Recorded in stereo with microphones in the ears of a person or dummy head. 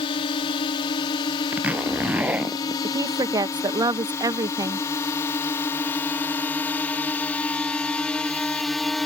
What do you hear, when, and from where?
0.0 s a drone: 30° left (ahead or behind); by 9.1 s centre (ahead or behind)
1.5 s a zipper: 10° right (ahead or behind)
2.8 s a woman speaking: 20° right (ahead or behind)